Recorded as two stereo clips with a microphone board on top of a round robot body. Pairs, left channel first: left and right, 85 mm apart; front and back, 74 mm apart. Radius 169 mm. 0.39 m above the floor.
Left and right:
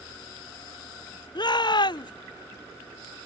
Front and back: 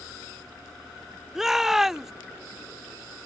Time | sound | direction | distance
1.4 | a shout | 95° left | ?